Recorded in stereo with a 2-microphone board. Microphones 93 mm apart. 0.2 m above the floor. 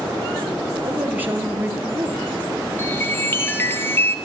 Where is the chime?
25° left (ahead or behind), 1.8 m.